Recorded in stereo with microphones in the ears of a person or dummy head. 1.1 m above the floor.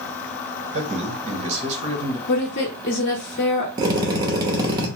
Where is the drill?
20° right (ahead or behind), 0.9 m.